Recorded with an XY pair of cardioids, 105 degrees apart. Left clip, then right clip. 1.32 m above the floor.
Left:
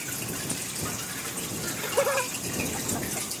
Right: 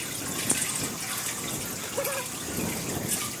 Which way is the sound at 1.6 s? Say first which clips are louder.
Left 8 dB; 50° left.